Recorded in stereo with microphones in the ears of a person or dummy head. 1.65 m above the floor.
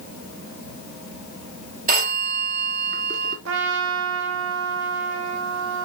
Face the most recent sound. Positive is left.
turn(degrees=-80)